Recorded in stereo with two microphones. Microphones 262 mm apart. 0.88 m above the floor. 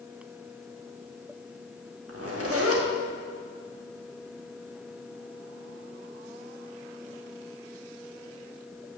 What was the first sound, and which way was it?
A zipper, 60° right (ahead or behind).